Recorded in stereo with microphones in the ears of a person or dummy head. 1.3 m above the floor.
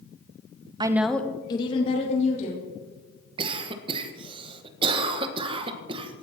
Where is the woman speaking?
25° right (ahead or behind), 0.8 m; by 2.7 s 40° left (ahead or behind), 3 m.